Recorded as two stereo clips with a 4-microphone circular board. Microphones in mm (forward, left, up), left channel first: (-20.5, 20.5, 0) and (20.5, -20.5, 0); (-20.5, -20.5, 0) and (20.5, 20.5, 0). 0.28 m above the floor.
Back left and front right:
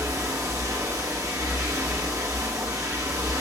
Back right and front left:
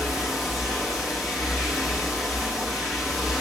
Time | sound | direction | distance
0.0 | running water | 40° right | 6.5 m